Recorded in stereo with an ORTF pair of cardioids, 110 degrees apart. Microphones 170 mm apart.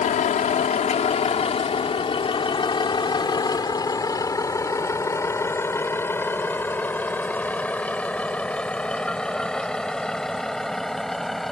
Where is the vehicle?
50° left; by 11.5 s straight ahead.